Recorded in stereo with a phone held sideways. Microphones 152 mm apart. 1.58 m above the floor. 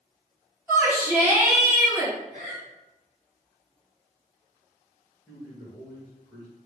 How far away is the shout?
About 1.7 m.